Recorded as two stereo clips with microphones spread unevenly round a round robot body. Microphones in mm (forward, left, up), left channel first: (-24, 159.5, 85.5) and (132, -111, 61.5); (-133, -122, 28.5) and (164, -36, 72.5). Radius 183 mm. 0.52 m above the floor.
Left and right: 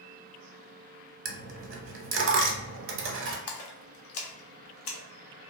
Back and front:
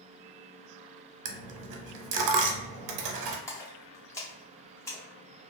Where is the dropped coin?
5° right, 0.5 m.